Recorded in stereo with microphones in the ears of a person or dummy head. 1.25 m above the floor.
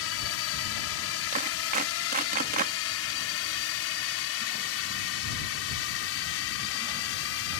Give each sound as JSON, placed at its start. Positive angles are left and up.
{"t": 0.0, "sound": "a drone", "side_deg": 70}
{"t": 1.3, "sound": "a clap", "side_deg": -45}